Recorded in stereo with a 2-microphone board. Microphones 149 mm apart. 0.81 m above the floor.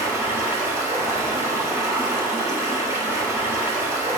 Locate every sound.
0.0 s running water: 20° right (ahead or behind), 1.7 m